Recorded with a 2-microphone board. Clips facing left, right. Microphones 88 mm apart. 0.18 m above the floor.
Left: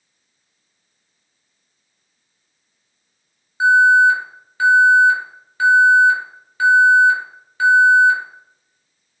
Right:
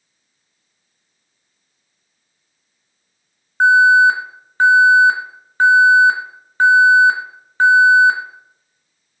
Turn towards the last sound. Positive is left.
turn(degrees=-50)  # may be behind; listen again after turning